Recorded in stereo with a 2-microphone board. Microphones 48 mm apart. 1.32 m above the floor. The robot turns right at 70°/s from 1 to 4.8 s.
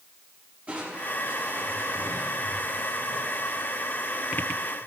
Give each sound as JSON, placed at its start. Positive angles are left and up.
{"t": 0.7, "sound": "crushing", "azimuth_deg": -150, "distance_m": 5.5}